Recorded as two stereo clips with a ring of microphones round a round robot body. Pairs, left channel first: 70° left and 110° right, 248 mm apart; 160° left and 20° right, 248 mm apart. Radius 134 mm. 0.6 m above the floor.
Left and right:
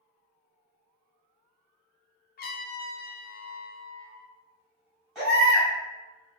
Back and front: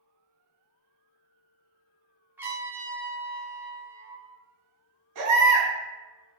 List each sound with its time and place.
2.4 s a trumpet: 55° left, 0.6 m
5.2 s a baby crying: 25° right, 1.7 m